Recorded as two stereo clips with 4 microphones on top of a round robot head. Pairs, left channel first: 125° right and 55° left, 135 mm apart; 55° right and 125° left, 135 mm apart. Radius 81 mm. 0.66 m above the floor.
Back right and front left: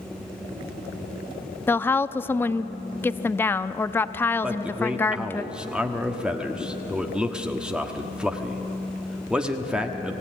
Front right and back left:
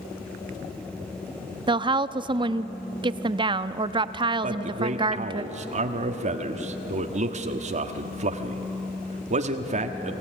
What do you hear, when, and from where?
1.7 s a woman speaking: 165° left, 0.7 m
4.4 s a man speaking: 135° left, 1.3 m